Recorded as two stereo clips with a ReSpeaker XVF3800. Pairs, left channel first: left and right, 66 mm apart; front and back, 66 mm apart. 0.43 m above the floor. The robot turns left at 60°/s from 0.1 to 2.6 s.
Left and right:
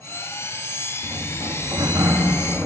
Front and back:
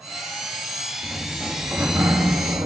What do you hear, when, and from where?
1.0 s a sliding door: 65° right, 3 m; by 2.7 s 160° right, 3 m